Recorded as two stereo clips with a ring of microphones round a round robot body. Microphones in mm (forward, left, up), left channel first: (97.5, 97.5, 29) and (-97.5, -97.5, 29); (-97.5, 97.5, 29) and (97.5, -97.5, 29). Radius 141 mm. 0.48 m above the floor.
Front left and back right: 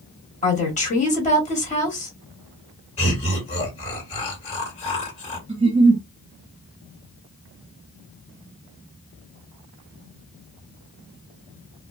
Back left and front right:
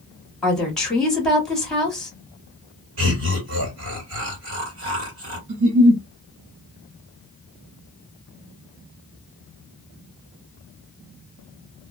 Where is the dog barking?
I don't hear a dog barking.